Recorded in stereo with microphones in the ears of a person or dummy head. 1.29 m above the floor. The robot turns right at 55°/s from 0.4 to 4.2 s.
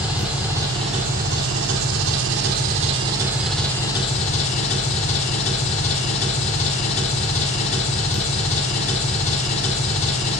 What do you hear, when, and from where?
0.0 s an engine running: 170° right, 1.4 m; by 10.4 s 40° left, 1.4 m